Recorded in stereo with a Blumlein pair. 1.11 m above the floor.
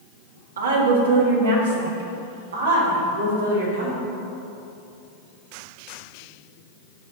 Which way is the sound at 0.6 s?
65° right.